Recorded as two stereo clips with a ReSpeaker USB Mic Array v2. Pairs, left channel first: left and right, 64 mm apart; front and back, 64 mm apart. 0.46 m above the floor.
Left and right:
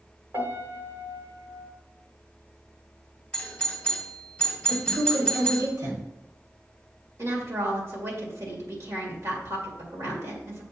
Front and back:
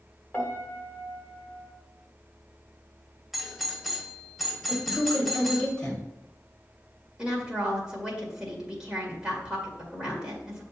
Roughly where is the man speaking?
Right.